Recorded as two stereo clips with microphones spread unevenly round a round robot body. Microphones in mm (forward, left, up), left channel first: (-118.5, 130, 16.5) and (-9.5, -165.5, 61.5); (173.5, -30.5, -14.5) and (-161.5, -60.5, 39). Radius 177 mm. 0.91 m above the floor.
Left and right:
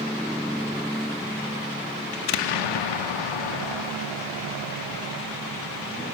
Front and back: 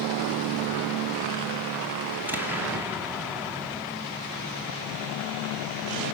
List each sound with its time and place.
2.1 s an explosion: 100° left, 0.8 m